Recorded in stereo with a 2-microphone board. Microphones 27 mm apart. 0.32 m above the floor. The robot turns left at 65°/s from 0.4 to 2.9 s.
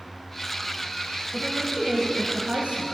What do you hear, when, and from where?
1.3 s a woman speaking: 10° left, 1.3 m; by 2.8 s 85° right, 1.3 m